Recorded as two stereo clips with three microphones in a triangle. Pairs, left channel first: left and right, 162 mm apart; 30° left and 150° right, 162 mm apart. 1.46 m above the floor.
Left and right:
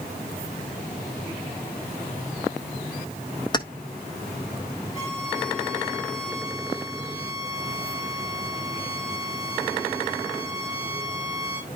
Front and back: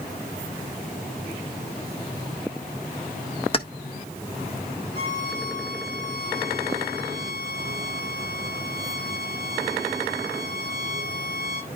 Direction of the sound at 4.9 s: 160° right.